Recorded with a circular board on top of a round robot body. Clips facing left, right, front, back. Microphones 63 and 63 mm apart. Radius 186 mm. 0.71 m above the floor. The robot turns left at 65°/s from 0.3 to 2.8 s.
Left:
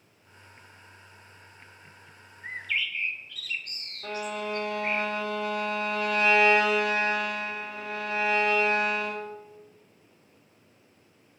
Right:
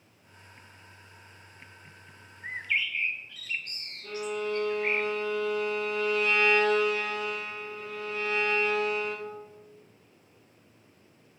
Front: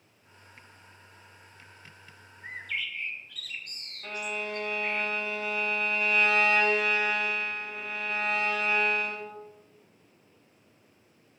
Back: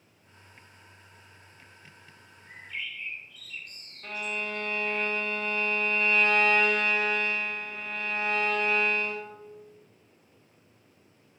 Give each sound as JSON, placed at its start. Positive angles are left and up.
{"t": 2.4, "sound": "a bird", "azimuth_deg": 0, "distance_m": 1.0}
{"t": 4.0, "sound": "a violin", "azimuth_deg": 85, "distance_m": 0.8}